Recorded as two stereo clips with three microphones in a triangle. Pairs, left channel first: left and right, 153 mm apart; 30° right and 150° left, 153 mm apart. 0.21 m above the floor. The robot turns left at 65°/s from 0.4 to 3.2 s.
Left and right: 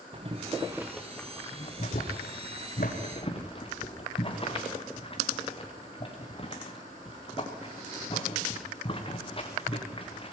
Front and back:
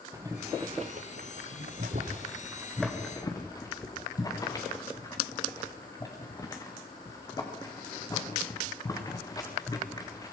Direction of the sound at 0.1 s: 140° right.